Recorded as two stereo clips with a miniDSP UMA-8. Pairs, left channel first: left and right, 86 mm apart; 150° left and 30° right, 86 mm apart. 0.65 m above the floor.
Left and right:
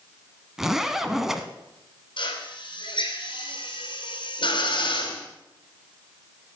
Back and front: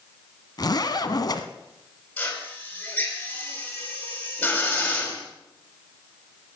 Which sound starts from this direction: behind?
A zipper, at 0.6 s.